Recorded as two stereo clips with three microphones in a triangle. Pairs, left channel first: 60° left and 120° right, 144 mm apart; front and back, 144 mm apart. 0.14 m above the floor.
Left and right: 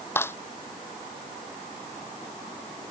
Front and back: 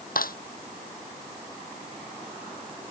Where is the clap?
15° right.